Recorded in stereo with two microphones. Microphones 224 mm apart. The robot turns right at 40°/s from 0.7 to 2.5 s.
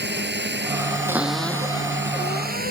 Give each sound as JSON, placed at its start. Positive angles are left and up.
{"t": 0.0, "sound": "a drone", "azimuth_deg": -120}
{"t": 1.1, "sound": "a cupboard door", "azimuth_deg": -10}